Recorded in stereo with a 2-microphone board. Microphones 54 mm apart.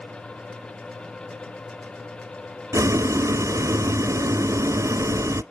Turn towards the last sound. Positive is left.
turn(degrees=-70)  # may be behind; listen again after turning